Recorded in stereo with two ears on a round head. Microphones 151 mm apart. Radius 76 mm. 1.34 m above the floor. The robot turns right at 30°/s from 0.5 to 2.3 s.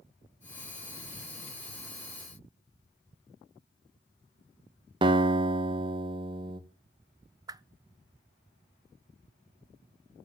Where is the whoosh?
25° right (ahead or behind), 0.6 m.